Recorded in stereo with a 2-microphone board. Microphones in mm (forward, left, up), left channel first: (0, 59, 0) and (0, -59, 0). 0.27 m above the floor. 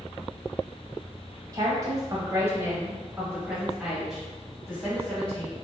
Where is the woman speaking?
30° right (ahead or behind), 1.2 m; by 5.5 s 10° left (ahead or behind), 1.8 m.